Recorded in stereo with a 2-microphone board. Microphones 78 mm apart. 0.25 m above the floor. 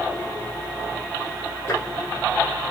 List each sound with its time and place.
1.7 s tapping: 35° left (ahead or behind), 3 m